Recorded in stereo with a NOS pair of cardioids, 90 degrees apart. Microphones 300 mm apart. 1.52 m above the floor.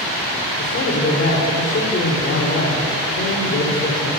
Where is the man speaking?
45° left, 4 m.